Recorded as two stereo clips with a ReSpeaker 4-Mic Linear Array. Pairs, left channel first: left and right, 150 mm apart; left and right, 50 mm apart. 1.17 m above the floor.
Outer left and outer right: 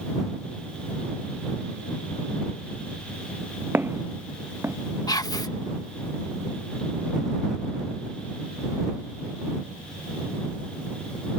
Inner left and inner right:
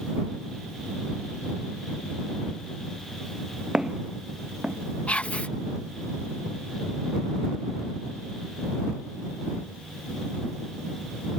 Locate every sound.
3.7 s footsteps: 15° right (ahead or behind)
5.1 s whispering: 25° left (ahead or behind)